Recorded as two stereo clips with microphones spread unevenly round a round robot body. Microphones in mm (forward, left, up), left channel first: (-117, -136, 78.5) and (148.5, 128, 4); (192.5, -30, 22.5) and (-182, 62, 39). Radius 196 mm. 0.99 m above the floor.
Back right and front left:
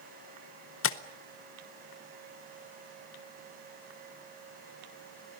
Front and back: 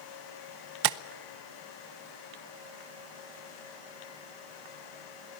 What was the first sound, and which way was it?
Tapping, 165° left.